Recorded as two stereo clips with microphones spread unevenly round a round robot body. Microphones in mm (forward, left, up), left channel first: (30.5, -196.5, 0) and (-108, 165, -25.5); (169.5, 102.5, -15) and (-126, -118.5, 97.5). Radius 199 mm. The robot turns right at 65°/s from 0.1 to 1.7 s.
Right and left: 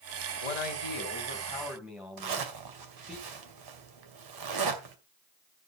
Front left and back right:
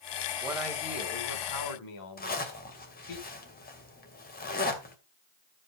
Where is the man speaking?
60° right, 3 m; by 3.2 s 25° left, 3 m.